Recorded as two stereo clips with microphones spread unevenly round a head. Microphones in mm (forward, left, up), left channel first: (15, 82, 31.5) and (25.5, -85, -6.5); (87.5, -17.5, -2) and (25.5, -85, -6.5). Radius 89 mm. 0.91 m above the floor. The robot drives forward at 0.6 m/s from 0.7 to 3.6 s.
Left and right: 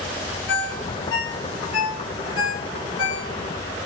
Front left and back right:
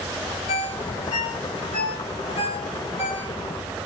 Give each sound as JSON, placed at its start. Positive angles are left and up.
{"t": 0.5, "sound": "a ringtone", "azimuth_deg": 75, "distance_m": 2.5}